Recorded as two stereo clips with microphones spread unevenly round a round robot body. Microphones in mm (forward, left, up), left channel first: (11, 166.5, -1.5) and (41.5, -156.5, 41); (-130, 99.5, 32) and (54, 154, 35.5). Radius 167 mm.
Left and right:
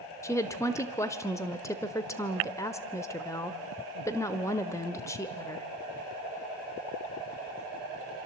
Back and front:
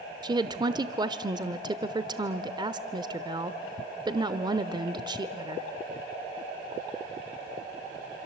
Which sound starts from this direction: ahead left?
A woman speaking, at 0.2 s.